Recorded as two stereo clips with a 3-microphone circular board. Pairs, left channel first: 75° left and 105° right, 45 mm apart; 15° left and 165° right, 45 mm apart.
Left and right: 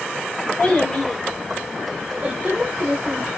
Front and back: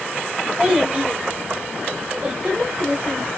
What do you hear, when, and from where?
0.6 s a child speaking: 115° left, 1.1 m; by 3.3 s 115° right, 1.1 m